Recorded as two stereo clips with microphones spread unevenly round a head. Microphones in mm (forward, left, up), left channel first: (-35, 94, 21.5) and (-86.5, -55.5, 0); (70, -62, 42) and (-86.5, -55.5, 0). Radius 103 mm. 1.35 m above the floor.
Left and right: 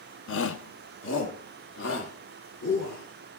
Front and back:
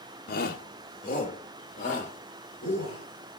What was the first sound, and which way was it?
A shout, 50° left.